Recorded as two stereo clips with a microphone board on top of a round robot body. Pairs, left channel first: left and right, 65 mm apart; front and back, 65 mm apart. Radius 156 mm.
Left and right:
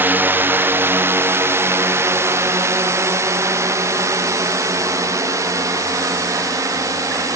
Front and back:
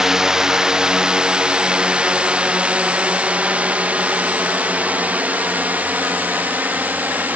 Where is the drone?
105° right; by 7.4 s 120° right.